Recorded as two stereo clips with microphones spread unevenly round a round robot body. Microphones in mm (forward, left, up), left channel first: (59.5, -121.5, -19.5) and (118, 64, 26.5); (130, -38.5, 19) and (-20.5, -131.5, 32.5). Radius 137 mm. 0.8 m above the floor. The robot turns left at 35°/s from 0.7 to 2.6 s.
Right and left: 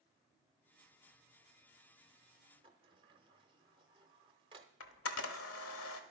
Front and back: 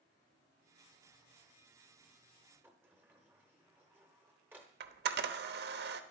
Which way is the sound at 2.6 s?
130° left.